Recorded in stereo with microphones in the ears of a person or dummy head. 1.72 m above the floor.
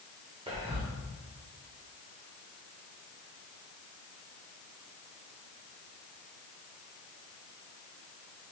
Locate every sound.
0.5 s whispering: 25° right (ahead or behind), 0.7 m